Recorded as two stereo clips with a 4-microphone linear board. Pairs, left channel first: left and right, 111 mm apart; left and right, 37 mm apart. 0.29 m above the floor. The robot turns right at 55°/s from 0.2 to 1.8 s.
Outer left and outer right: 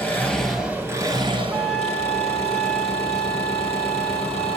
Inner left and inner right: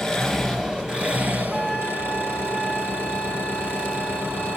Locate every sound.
0.0 s an engine running: 165° left, 4 m; by 4.6 s 110° right, 4 m
1.5 s a flute: 10° right (ahead or behind), 1.4 m; by 4.6 s 5° left (ahead or behind), 1.4 m